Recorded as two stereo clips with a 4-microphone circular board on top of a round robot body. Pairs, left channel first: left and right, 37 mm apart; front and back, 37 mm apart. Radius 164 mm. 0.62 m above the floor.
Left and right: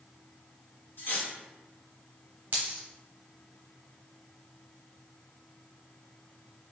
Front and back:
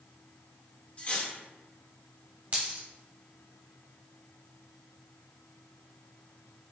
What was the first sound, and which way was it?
Cutlery clinking, 55° left.